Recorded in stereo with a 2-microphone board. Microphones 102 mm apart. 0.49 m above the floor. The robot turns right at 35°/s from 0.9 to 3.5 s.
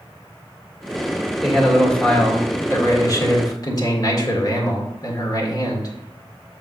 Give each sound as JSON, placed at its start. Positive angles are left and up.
{"t": 1.4, "sound": "a man speaking", "azimuth_deg": -5, "distance_m": 1.7}